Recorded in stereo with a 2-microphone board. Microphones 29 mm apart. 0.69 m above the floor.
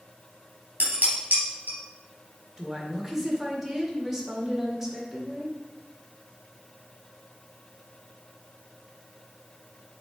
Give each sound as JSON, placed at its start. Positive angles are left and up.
{"t": 0.8, "sound": "dishes clattering", "side_deg": -65, "distance_m": 3.5}
{"t": 2.6, "sound": "a woman speaking", "side_deg": -10, "distance_m": 1.7}